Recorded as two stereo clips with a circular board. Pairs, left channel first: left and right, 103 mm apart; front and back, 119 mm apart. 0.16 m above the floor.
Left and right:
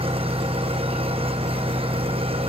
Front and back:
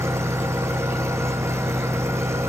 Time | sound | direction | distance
0.0 | an engine running | 115° right | 3 m